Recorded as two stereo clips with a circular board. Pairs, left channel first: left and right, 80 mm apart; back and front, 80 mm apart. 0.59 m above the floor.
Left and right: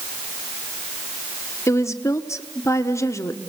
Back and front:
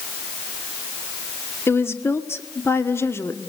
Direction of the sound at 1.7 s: 130° left.